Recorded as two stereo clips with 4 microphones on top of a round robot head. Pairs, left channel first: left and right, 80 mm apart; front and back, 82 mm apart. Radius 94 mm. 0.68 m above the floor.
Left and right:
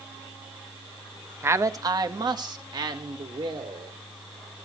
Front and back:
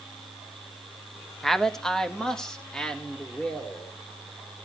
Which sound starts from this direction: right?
A man speaking, at 1.4 s.